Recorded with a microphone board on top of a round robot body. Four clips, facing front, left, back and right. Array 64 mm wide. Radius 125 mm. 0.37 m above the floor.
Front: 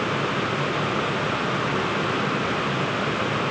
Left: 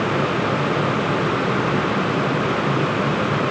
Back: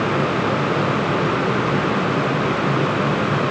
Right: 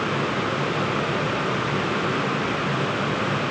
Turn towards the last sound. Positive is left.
No sound to turn to.